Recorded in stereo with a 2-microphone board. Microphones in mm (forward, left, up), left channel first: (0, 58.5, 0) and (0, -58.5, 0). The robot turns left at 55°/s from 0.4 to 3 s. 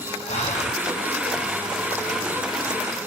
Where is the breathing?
75° left (ahead or behind), 5 m.